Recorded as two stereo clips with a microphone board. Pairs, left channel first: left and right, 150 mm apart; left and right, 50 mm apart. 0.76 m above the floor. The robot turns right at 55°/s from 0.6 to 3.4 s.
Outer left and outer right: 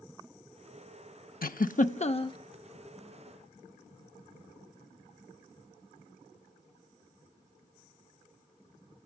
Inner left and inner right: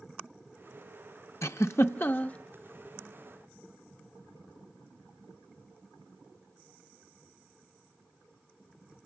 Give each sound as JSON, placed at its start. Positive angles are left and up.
{"t": 1.4, "sound": "a giggle", "side_deg": 75, "distance_m": 0.6}